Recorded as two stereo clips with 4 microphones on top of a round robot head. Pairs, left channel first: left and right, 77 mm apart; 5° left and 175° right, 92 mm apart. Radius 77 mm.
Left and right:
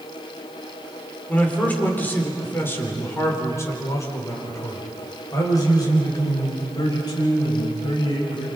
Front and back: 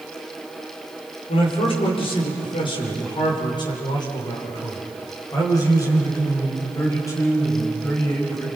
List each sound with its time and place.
1.3 s a man speaking: 20° left, 5.5 m; by 8.5 s 65° left, 8.5 m